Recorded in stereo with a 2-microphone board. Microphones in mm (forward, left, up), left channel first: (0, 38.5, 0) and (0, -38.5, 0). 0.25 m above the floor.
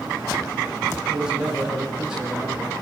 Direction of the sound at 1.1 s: 5° right (ahead or behind).